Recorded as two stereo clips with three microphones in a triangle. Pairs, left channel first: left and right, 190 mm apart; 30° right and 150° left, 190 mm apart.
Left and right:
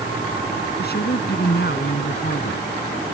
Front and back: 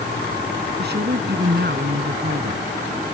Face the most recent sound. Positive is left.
turn(degrees=120)